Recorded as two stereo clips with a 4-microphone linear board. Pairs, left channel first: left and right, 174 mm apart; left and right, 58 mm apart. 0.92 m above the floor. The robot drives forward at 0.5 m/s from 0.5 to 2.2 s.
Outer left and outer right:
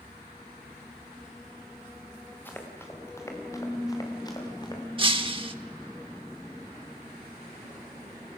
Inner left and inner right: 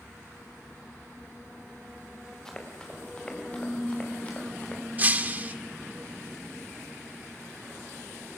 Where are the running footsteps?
10° left (ahead or behind), 4.5 m; by 4.8 s 25° left (ahead or behind), 5.5 m.